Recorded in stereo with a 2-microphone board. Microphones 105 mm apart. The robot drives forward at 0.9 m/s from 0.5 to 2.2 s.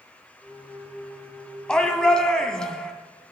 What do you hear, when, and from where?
1.7 s a shout: 10° left (ahead or behind), 1.9 m; by 2.9 s 5° left (ahead or behind), 2.5 m